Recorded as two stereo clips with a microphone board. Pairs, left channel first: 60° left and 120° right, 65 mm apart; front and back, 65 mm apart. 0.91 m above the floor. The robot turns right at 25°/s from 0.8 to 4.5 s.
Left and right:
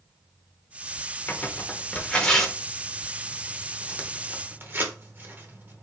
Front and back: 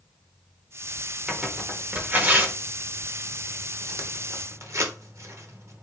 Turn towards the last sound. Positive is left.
turn(degrees=-165)